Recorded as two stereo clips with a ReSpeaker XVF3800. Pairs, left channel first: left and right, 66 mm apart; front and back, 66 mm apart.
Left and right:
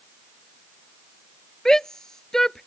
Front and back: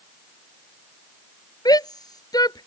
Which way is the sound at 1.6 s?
5° left.